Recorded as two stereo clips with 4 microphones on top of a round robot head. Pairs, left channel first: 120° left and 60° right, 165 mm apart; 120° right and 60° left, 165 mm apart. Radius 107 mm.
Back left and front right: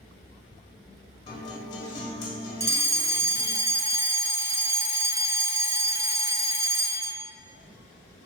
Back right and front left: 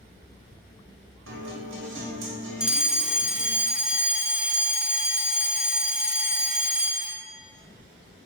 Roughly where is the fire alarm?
Ahead.